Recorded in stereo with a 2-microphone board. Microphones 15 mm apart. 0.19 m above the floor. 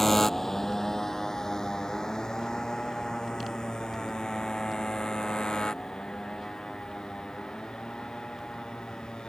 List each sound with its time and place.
0.0 s a motorcycle: 15° left (ahead or behind); by 9.3 s 70° left (ahead or behind)